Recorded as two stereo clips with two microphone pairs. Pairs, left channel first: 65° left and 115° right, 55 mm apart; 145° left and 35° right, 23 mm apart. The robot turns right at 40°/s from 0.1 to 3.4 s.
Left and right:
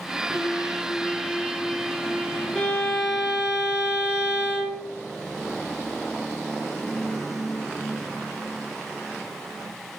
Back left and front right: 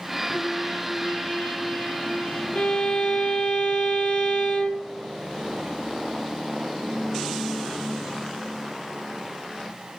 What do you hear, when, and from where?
0.3 s a trumpet: 85° left, 7.5 m; by 2.5 s 170° left, 7.5 m
2.5 s a violin: 135° left, 3.5 m; by 4.9 s 165° left, 3.5 m